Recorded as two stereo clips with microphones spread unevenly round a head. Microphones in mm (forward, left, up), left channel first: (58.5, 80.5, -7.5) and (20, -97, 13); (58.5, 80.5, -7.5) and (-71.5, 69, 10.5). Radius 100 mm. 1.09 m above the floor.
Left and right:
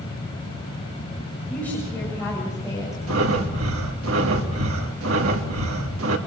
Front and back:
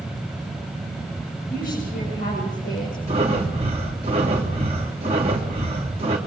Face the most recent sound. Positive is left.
turn(degrees=-110)